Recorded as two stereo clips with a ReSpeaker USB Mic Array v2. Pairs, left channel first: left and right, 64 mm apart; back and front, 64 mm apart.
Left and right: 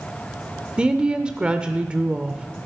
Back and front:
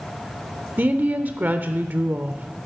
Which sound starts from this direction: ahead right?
A woman speaking, at 0.8 s.